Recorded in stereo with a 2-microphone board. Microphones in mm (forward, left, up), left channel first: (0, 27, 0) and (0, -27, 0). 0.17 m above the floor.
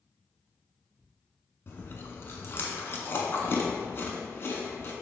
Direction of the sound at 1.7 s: 50° left (ahead or behind).